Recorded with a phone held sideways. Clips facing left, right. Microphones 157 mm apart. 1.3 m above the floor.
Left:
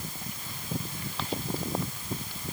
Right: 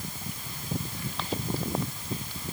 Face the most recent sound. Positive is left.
No sound to turn to.